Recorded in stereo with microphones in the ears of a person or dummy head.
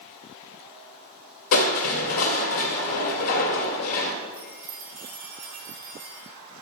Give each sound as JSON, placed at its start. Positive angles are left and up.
{"t": 1.5, "sound": "crushing", "side_deg": 70, "distance_m": 2.0}
{"t": 4.3, "sound": "a chime", "side_deg": -40, "distance_m": 3.0}